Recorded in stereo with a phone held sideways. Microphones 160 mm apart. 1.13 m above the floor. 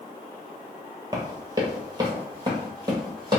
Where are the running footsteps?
25° right (ahead or behind), 1.2 m.